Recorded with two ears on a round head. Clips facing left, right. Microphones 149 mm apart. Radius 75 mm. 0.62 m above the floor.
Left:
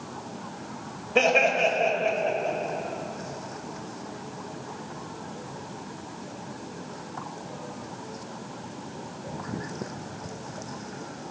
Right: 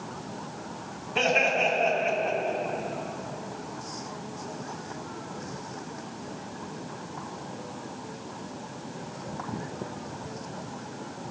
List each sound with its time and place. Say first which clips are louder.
1.1 s laughter: left 4 dB; 60° left (ahead or behind), 2.5 m; by 2.6 s 30° left (ahead or behind), 2.5 m